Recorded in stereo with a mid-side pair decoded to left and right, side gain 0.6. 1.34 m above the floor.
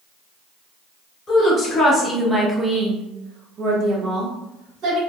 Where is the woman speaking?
30° left, 1.0 m; by 5.0 s 70° right, 1.6 m.